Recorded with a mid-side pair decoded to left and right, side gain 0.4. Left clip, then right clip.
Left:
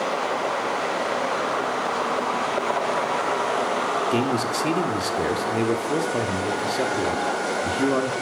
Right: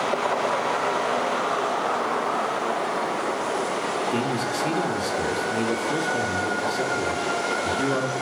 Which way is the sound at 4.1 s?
35° left.